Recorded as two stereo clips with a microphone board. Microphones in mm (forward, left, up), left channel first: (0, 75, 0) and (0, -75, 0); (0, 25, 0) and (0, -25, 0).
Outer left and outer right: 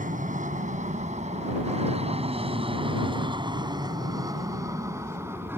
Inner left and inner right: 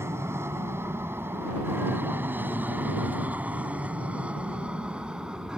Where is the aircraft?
60° right (ahead or behind); by 5.6 s 15° right (ahead or behind).